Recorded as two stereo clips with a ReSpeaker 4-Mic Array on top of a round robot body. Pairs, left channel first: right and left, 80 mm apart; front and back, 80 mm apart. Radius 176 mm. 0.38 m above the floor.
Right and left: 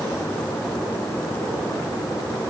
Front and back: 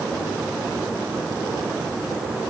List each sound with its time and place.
Only background noise.